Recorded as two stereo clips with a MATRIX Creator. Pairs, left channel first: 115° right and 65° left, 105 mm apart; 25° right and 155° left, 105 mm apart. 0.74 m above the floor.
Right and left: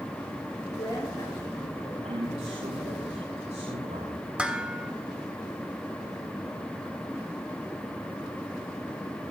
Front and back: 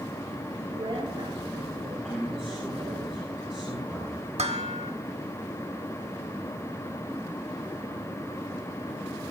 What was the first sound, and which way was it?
A woman speaking, 160° right.